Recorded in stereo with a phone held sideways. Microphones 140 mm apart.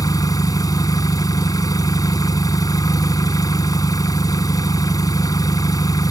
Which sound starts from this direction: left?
An engine running, at 0.0 s.